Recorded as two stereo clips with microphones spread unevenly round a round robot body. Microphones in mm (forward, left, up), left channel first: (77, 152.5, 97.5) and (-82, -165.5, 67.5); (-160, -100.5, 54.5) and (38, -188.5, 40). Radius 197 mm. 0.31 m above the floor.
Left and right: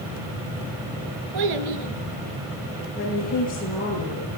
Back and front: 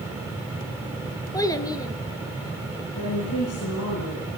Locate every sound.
1.3 s a child speaking: 130° right, 4.5 m
3.0 s a woman speaking: 130° left, 9.5 m